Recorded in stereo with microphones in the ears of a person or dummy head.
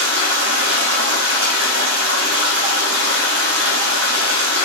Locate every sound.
0.0 s running water: 80° right, 1.0 m